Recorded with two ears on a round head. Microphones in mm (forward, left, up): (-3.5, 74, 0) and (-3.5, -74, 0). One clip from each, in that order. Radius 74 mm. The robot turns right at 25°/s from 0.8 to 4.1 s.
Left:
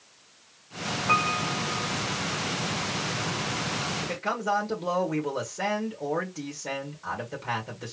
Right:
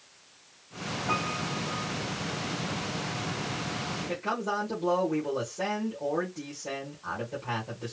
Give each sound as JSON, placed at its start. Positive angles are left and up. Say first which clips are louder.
{"t": 1.1, "sound": "a piano", "louder": "left 7 dB", "side_deg": 25, "distance_m": 2.0}
{"t": 4.0, "sound": "a man speaking", "louder": "left 2 dB", "side_deg": 60, "distance_m": 2.0}